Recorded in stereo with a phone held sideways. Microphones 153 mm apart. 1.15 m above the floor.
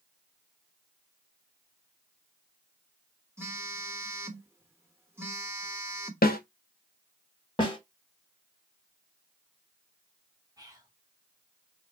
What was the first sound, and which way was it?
A phone buzzing, 15° right (ahead or behind).